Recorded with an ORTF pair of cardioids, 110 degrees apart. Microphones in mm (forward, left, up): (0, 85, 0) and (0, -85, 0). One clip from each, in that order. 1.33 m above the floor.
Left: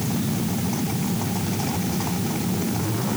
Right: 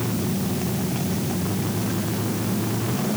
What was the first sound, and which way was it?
Only background noise.